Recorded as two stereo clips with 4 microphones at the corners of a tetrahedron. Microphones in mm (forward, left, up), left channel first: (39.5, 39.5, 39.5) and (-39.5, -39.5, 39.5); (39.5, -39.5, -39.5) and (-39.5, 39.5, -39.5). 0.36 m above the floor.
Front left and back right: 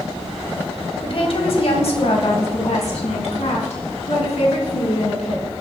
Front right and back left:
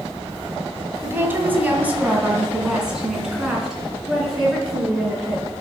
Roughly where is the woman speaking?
Left.